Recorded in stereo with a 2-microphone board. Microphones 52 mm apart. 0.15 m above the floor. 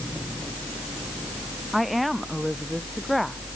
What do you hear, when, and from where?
1.7 s a woman speaking: centre (ahead or behind)